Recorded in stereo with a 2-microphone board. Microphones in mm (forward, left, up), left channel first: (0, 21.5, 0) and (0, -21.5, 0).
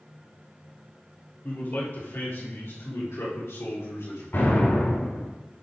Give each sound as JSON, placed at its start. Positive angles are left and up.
{"t": 1.4, "sound": "a man speaking", "side_deg": 45, "distance_m": 3.5}
{"t": 4.3, "sound": "an explosion", "side_deg": 55, "distance_m": 4.0}